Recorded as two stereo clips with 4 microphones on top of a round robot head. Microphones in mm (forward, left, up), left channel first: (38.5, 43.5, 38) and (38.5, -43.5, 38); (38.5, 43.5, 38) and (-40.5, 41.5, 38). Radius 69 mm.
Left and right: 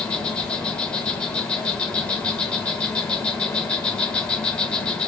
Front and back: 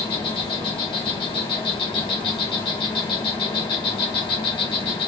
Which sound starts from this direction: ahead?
An insect, at 0.0 s.